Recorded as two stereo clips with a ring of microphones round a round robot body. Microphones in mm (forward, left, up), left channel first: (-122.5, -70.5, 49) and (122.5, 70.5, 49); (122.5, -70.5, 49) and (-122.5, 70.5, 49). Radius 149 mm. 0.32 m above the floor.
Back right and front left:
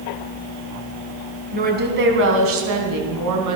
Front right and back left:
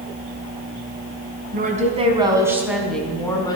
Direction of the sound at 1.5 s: 90° left.